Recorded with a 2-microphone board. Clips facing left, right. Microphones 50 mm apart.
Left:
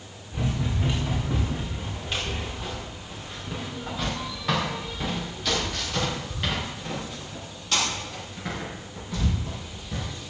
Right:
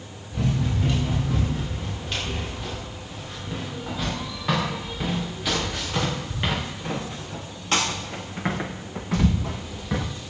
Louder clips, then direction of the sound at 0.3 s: Right 3 dB; 10° left (ahead or behind).